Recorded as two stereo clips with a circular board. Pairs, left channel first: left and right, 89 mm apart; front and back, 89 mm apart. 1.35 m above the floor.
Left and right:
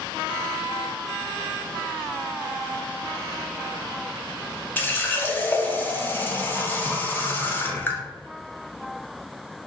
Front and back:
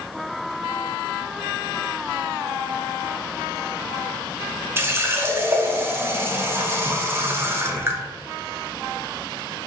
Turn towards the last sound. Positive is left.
turn(degrees=140)